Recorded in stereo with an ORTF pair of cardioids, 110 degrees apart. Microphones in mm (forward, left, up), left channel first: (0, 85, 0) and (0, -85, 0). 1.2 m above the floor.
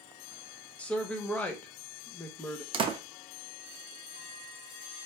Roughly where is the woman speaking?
Ahead.